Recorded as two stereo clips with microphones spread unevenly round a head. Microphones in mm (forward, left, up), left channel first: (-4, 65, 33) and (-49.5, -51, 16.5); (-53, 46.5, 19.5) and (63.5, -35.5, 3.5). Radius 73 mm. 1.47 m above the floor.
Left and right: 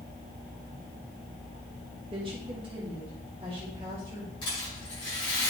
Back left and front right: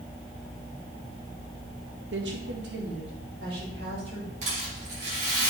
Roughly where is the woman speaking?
Ahead right.